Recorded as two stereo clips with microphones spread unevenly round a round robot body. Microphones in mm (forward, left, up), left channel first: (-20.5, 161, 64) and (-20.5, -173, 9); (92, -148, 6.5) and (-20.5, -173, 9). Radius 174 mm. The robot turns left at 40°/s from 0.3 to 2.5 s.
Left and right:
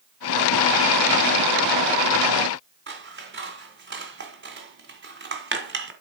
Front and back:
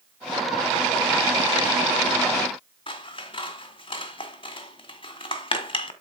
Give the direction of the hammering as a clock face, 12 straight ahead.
I don't hear hammering.